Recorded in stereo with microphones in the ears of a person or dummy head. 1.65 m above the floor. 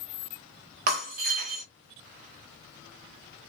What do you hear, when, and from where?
0.9 s breaking glass: 50° right (ahead or behind), 1.3 m